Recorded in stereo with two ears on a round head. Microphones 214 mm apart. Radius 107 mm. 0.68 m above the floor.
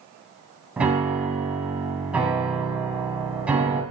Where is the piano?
5° right (ahead or behind), 2.5 m.